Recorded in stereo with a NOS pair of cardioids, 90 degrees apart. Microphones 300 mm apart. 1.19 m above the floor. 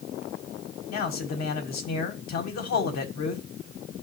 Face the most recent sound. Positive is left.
turn(degrees=65)